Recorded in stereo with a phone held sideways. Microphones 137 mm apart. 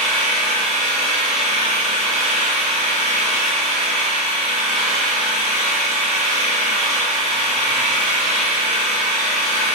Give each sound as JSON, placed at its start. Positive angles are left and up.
{"t": 0.0, "sound": "an engine running", "side_deg": -75, "distance_m": 3.0}